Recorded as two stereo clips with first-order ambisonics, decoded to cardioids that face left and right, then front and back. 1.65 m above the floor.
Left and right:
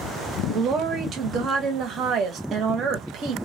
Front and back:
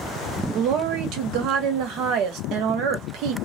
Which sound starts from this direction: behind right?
A woman speaking, at 0.5 s.